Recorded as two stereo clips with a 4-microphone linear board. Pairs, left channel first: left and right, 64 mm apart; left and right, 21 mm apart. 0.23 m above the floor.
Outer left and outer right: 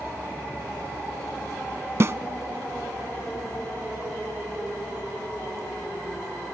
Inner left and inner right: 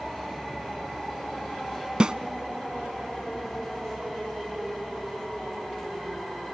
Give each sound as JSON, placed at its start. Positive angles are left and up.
{"t": 2.0, "sound": "a snare drum", "side_deg": -45, "distance_m": 0.5}